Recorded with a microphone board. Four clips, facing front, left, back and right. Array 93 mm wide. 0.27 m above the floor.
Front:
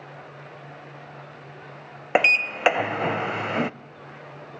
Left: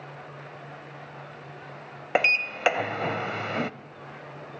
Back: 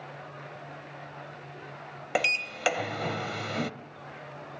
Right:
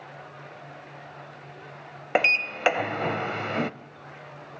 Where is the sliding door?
Straight ahead, 0.5 m.